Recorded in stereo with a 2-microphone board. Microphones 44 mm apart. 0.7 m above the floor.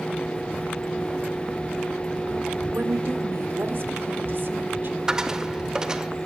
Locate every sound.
2.7 s a woman speaking: 70° right (ahead or behind), 2 m; by 5.0 s 50° right (ahead or behind), 2 m
5.1 s a dropped coin: 15° right (ahead or behind), 0.7 m